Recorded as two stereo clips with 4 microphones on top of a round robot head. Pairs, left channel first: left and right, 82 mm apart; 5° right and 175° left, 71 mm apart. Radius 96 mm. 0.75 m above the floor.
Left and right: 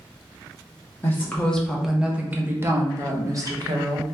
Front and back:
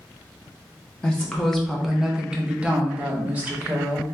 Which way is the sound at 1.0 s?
60° left.